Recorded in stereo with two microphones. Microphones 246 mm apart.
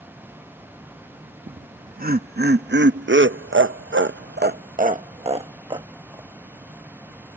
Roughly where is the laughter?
Right.